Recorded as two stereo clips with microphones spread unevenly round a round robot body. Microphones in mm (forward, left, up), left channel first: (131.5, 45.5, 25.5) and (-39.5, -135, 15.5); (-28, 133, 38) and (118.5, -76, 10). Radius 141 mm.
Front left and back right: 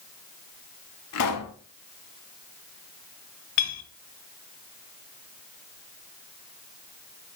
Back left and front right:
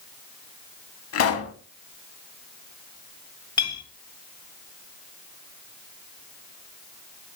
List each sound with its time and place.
1.1 s a pop: 85° left, 0.8 m
3.6 s a clink: 50° left, 1.6 m